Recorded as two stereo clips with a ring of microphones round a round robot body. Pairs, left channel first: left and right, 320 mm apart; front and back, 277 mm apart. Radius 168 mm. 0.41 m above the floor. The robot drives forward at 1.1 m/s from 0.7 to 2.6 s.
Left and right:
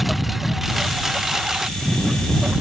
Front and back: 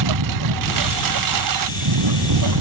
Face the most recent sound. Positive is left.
turn(degrees=180)